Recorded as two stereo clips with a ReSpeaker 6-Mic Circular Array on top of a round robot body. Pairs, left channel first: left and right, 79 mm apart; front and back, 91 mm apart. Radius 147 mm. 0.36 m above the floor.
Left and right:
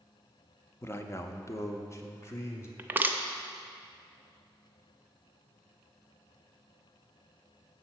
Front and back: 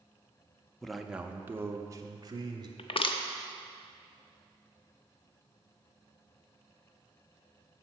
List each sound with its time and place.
0.8 s a man speaking: 80° left, 0.8 m; by 2.7 s 140° left, 1.5 m
2.8 s crushing: 25° right, 0.7 m